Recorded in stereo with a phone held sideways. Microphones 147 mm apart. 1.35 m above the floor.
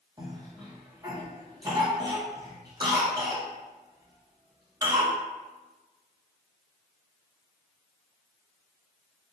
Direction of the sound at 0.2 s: 30° right (ahead or behind).